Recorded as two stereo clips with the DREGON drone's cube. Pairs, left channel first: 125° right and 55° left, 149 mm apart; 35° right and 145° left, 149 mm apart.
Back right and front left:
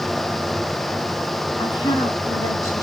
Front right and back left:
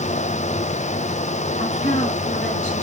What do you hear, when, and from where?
1.6 s a woman speaking: 70° right, 4 m; by 2.8 s 55° right, 4 m